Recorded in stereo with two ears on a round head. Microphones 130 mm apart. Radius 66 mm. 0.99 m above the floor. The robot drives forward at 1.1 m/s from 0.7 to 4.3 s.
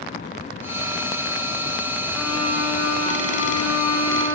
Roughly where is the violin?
Left.